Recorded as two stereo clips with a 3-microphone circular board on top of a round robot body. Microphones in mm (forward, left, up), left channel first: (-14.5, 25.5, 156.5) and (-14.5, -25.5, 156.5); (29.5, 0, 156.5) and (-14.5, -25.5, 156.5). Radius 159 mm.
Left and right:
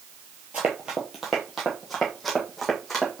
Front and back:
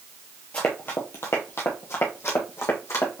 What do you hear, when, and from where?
0.5 s running footsteps: 30° right, 0.5 m; by 3.2 s straight ahead, 1.8 m